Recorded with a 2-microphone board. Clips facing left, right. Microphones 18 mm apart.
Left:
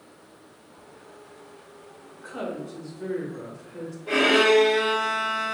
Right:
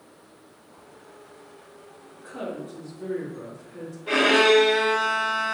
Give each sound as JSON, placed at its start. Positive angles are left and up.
{"t": 2.1, "sound": "a woman speaking", "side_deg": 70, "distance_m": 1.5}
{"t": 4.1, "sound": "a violin", "side_deg": -30, "distance_m": 0.9}